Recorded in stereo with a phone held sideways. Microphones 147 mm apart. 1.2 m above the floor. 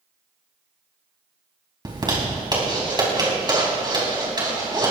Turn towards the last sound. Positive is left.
turn(degrees=-30)  # may be behind; listen again after turning